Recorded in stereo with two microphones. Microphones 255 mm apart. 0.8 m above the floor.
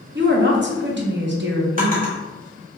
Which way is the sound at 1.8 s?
35° right (ahead or behind).